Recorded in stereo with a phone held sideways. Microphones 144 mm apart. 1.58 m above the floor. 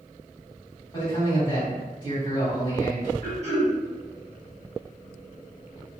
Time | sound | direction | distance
0.9 | a man speaking | 30° left (ahead or behind) | 1.7 m
3.2 | throat clearing | 20° left (ahead or behind) | 1.9 m